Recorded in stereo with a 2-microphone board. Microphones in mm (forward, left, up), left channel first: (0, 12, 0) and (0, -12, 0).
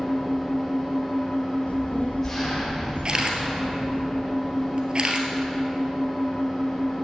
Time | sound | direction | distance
0.0 | an engine running | 15° left (ahead or behind) | 6 m
1.7 | a child speaking | 75° left (ahead or behind) | 2 m
3.0 | a camera shutter | 40° right (ahead or behind) | 1.8 m